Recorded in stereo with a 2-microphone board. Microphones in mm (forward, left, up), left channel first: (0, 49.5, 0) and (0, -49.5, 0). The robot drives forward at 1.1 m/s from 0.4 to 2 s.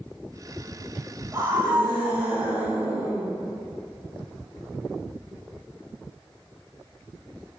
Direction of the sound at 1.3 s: 25° right (ahead or behind).